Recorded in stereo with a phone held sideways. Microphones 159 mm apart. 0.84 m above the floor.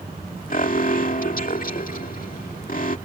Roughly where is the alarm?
Left.